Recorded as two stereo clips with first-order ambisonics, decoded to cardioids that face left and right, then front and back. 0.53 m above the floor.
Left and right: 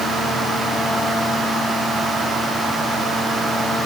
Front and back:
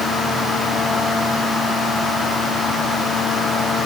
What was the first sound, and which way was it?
Only background noise.